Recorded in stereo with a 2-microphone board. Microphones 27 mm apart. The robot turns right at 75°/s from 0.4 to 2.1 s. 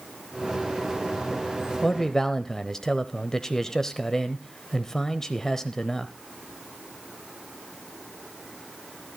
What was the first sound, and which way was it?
A man speaking, 25° left (ahead or behind).